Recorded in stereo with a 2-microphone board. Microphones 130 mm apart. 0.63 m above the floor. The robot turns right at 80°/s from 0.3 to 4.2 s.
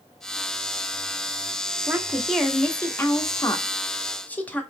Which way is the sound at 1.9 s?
15° right (ahead or behind).